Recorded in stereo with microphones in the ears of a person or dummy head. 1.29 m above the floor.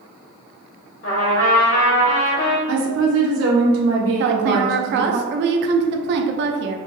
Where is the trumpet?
65° left (ahead or behind), 1.7 m.